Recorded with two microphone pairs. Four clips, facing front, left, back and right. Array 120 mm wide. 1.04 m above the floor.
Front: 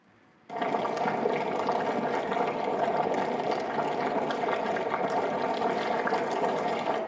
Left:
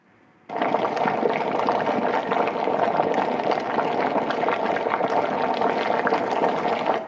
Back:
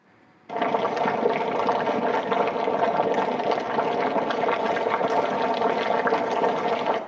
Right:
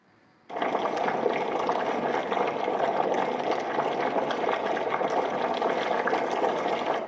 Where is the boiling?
110° left, 0.9 m.